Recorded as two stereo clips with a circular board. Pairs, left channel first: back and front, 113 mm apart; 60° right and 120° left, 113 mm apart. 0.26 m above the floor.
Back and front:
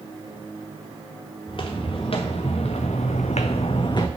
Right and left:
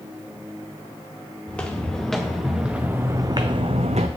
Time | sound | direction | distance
1.5 | footsteps | 140° right | 1.9 m